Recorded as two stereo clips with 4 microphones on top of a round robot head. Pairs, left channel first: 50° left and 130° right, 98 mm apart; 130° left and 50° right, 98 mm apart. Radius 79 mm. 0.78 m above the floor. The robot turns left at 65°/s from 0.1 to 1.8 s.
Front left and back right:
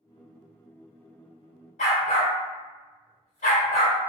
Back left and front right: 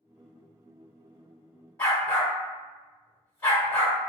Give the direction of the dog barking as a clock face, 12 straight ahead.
10 o'clock.